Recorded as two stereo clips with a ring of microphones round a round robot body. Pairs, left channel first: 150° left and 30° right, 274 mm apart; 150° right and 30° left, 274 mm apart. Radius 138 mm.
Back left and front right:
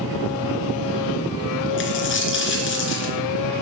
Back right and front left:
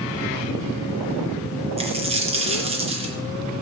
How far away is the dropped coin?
About 3 m.